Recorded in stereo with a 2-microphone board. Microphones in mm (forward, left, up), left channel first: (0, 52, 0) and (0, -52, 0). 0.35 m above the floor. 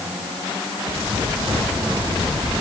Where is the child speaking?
I don't hear a child speaking.